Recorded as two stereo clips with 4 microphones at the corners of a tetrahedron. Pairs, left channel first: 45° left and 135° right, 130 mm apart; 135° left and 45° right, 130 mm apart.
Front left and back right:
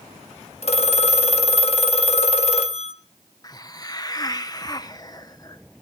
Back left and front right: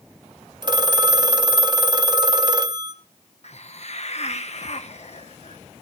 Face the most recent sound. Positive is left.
turn(degrees=105)